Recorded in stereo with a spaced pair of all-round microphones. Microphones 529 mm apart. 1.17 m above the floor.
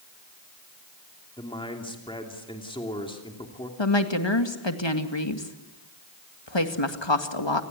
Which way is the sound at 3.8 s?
55° left (ahead or behind).